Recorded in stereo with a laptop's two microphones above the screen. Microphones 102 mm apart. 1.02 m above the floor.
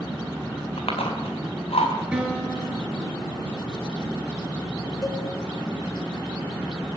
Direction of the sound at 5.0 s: 35° left (ahead or behind).